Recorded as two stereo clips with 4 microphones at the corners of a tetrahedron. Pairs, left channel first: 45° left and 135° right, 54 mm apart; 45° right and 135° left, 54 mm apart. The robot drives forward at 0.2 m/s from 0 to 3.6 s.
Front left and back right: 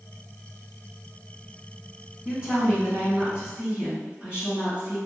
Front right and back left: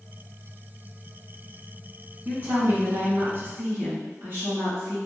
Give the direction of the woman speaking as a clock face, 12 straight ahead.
7 o'clock.